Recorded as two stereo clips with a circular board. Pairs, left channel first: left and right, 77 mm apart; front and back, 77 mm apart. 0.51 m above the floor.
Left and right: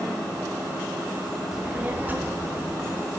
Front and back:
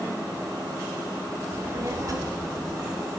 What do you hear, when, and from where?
1.5 s a child speaking: 165° right, 0.8 m; by 3.1 s 145° right, 2.5 m